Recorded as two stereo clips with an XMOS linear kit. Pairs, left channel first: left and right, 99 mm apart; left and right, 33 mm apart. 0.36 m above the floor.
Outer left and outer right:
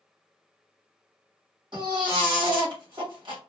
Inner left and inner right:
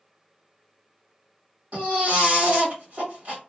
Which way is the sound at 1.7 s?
55° right (ahead or behind).